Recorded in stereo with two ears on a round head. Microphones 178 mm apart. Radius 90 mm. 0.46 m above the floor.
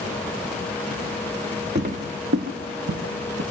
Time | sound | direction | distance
1.8 | footsteps | 35° right (ahead or behind) | 1.2 m